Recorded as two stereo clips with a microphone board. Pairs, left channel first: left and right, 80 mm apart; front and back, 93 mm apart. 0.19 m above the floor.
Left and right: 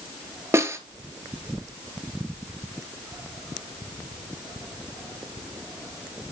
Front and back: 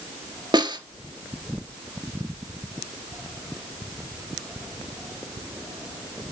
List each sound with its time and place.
0.5 s a snare drum: 145° right, 1.1 m